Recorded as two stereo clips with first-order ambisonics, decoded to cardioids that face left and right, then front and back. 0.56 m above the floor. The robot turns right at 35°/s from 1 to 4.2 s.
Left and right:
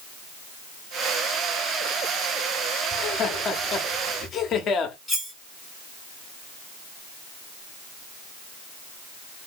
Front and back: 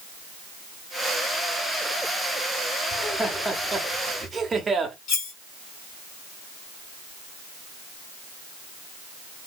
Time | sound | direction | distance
2.9 | laughter | 65° left | 0.9 m
5.1 | cutlery clinking | straight ahead | 1.8 m